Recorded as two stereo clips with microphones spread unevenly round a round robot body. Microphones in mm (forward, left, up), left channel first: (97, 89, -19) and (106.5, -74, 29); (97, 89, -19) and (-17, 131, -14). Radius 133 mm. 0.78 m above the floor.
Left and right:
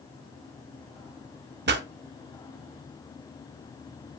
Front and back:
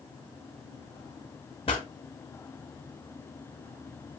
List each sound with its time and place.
1.7 s a pop: 90° right, 1.1 m